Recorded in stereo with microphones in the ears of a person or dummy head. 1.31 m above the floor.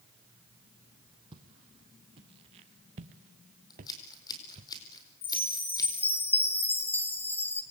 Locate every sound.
1.3 s footsteps: 30° right (ahead or behind), 2.5 m
3.7 s scissors: 20° left (ahead or behind), 4.5 m
5.2 s a chime: 10° left (ahead or behind), 1.6 m